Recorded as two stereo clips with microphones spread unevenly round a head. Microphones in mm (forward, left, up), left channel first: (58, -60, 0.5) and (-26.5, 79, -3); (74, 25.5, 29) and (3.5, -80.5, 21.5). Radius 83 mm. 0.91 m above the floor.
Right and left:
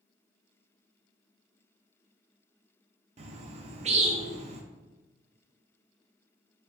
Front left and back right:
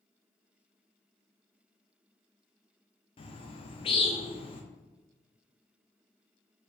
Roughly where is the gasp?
I don't hear a gasp.